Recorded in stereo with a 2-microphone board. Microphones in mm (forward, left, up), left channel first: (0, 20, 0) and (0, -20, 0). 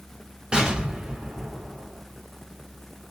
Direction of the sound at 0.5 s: 30° right (ahead or behind).